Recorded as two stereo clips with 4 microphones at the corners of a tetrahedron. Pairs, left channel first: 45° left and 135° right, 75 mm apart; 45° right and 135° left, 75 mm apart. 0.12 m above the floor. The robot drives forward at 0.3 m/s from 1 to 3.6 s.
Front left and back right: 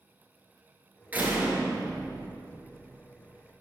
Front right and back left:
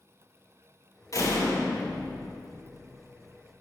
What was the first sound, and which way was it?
A door slam, 75° right.